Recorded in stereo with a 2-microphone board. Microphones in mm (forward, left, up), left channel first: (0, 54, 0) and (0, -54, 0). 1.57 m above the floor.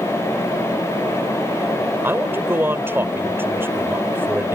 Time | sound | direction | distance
2.0 | a man speaking | 20° right (ahead or behind) | ?